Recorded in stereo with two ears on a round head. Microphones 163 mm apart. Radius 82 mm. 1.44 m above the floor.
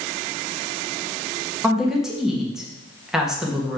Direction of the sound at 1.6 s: 5° right (ahead or behind).